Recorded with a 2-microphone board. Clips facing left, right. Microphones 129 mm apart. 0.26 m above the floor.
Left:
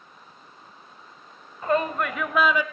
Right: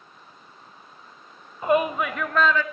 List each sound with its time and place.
1.6 s a shout: 20° right (ahead or behind), 0.9 m; by 2.6 s 15° left (ahead or behind), 1.3 m